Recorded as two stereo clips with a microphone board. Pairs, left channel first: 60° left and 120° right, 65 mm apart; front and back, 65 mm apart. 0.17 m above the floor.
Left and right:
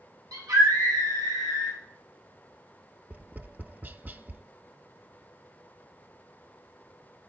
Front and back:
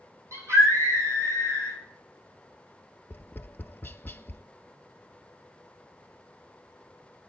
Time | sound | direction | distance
0.3 | a scream | 140° right | 8.5 m
3.1 | tapping | 60° right | 0.6 m